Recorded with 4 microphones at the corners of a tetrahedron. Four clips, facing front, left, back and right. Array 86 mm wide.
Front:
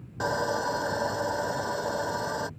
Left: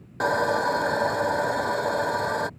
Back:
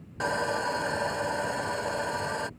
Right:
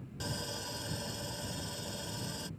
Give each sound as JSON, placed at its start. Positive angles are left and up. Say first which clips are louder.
{"t": 0.2, "sound": "sawing", "louder": "left 20 dB, front 1 dB", "azimuth_deg": 80}